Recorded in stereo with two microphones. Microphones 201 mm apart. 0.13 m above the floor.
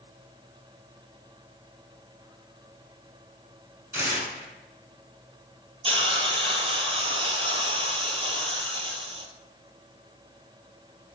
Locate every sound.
3.9 s tearing paper: 10° right (ahead or behind), 1.2 m
5.8 s a hiss: 25° right (ahead or behind), 0.5 m